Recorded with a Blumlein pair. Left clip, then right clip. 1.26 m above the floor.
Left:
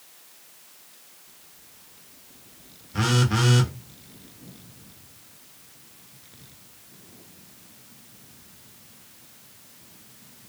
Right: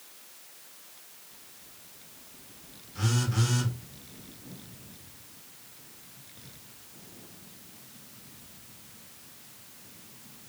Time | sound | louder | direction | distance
2.9 | a phone buzzing | left 8 dB | 50° left | 0.7 m